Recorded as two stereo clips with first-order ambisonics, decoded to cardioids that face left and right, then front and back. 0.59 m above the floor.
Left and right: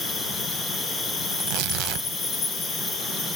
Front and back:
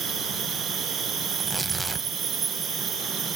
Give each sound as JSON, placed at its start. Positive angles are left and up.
{"t": 0.0, "sound": "an insect", "azimuth_deg": 145, "distance_m": 2.0}
{"t": 1.3, "sound": "tearing paper", "azimuth_deg": -100, "distance_m": 0.7}